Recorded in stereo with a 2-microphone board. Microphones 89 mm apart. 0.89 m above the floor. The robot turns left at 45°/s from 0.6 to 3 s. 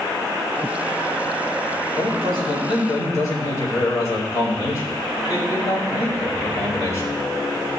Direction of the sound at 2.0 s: 85° left.